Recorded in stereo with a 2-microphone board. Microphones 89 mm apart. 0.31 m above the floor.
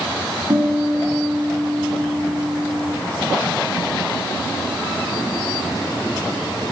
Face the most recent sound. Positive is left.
turn(degrees=-80)